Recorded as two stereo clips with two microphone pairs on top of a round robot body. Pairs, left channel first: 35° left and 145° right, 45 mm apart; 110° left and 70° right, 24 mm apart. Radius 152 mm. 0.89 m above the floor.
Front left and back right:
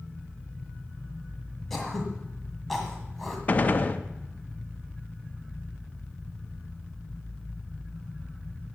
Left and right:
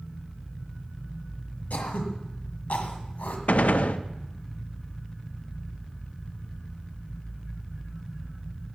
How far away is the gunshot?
About 0.8 m.